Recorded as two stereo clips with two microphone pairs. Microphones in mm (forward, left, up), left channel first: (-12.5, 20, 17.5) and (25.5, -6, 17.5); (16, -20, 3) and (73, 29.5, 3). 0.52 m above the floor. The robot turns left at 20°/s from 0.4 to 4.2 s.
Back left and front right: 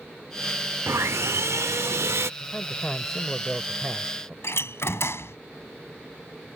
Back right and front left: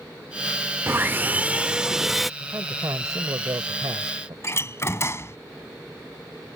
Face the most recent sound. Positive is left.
turn(degrees=165)